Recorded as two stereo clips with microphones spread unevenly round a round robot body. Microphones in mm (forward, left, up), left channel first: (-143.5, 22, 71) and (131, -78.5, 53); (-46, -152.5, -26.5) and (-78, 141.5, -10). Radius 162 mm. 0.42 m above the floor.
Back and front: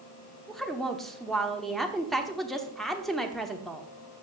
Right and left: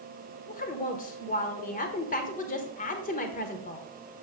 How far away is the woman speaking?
About 1.1 m.